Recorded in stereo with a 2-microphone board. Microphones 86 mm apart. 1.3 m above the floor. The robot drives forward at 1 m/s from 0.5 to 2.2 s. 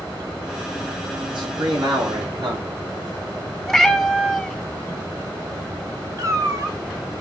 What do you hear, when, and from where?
1.3 s a man speaking: 80° right, 3 m; by 2.8 s 75° right (ahead or behind), 3 m
3.7 s a cat meowing: centre (ahead or behind), 0.8 m
6.2 s a cat meowing: 40° right (ahead or behind), 1.2 m